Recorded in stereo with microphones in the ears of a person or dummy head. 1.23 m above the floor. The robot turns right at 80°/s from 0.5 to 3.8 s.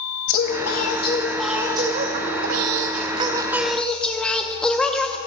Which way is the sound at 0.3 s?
105° left.